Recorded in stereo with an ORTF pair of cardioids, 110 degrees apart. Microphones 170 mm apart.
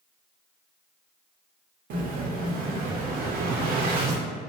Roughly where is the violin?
No violin in this recording.